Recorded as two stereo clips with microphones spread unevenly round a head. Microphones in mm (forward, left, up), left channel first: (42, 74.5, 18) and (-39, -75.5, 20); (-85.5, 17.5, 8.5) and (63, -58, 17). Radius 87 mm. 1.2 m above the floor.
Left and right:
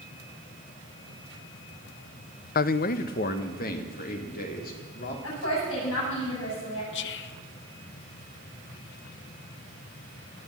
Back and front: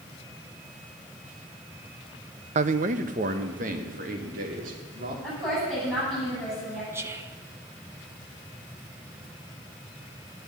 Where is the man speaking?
25° left, 0.5 m; by 5.1 s 20° left, 3 m.